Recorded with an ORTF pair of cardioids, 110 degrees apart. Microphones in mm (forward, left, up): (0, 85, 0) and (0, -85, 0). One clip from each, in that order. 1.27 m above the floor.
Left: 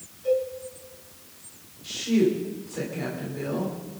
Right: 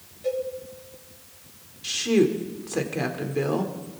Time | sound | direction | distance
0.2 | a cowbell | 55° right | 6 m
1.8 | a woman speaking | 65° right | 3 m